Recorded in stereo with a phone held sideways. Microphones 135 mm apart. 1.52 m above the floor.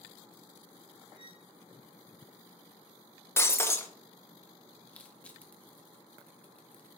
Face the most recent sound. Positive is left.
turn(degrees=10)  # may be behind; listen again after turning